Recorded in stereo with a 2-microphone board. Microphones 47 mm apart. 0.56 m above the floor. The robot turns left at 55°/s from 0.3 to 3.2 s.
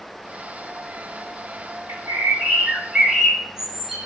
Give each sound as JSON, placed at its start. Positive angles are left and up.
{"t": 1.9, "sound": "a bird", "azimuth_deg": -90, "distance_m": 1.2}